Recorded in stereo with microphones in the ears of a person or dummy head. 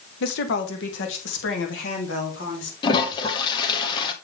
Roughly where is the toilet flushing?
Left.